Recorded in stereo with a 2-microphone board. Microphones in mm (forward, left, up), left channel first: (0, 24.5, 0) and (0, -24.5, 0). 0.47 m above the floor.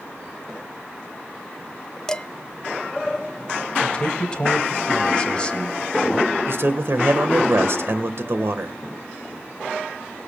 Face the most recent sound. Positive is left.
turn(degrees=-60)  # may be behind; listen again after turning